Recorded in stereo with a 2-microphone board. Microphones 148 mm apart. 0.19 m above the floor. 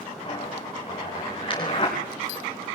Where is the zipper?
35° left (ahead or behind), 8 m.